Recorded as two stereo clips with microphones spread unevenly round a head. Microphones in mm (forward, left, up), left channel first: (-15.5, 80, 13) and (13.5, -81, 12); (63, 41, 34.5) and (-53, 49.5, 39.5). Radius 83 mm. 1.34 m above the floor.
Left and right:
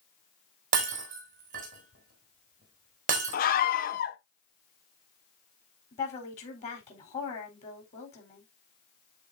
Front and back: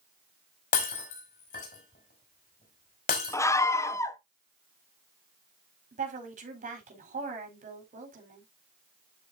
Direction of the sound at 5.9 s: 155° left.